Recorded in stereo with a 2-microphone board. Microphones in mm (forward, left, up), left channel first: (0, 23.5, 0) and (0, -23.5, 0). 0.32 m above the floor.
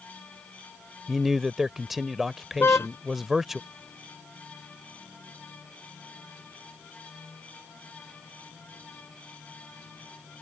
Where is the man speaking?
5° right (ahead or behind).